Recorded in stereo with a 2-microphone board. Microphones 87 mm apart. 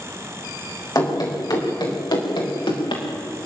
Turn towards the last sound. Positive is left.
turn(degrees=75)  # may be behind; listen again after turning